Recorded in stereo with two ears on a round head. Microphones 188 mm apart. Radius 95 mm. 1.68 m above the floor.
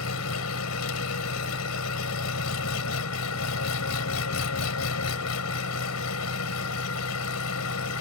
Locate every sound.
0.0 s an engine running: 85° left